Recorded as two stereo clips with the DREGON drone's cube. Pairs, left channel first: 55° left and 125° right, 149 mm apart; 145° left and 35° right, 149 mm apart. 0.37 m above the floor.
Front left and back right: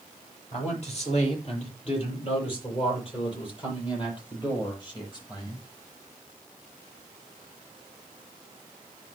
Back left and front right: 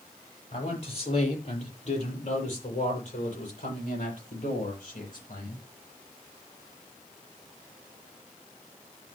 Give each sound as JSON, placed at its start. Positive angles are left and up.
{"t": 0.5, "sound": "a man speaking", "azimuth_deg": 100, "distance_m": 9.0}